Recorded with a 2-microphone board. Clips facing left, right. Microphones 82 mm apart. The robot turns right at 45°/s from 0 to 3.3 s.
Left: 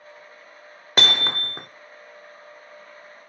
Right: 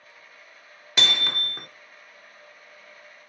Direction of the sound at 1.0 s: 125° left.